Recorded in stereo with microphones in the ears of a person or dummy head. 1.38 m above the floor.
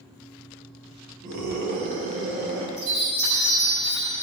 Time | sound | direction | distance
1.2 | a scream | 50° right (ahead or behind) | 2 m
2.8 | a chime | 25° right (ahead or behind) | 4 m